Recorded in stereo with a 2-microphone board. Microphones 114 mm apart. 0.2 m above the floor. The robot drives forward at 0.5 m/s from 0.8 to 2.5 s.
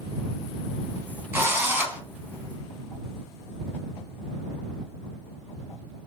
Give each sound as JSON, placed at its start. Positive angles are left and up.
{"t": 1.3, "sound": "a drill", "side_deg": -20, "distance_m": 0.8}